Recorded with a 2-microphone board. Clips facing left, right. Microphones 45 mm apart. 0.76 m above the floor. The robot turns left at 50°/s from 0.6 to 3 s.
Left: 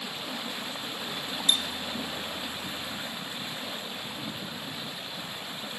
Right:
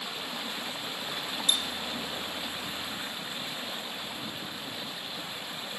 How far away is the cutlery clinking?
About 1.1 m.